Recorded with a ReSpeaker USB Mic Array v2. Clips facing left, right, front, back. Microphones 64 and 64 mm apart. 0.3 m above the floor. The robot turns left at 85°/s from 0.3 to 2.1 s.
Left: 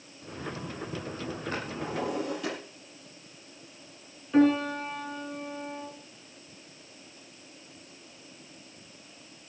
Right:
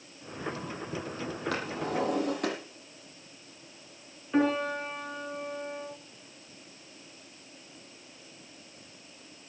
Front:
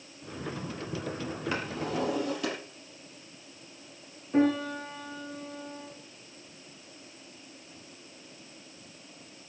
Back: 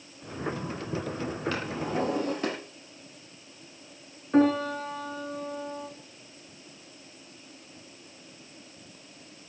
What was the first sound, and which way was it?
A drawer, 75° right.